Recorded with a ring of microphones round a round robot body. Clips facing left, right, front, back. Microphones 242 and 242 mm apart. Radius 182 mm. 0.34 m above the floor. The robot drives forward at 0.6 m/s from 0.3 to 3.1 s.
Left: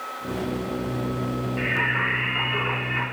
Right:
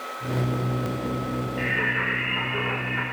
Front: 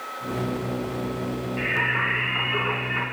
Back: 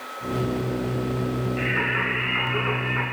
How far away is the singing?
About 2.5 m.